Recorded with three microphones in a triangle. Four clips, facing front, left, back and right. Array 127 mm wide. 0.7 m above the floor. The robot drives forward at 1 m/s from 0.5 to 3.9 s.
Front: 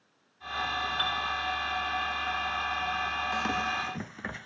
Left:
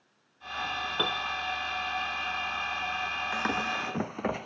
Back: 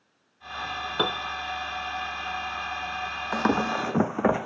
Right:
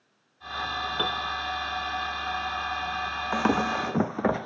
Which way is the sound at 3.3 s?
135° right.